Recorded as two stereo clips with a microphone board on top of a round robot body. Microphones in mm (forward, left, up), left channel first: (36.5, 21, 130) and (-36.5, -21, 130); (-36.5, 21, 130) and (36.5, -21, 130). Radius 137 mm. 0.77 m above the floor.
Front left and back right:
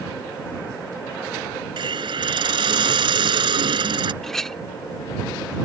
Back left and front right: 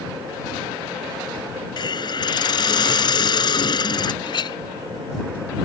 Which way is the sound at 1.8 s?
175° right.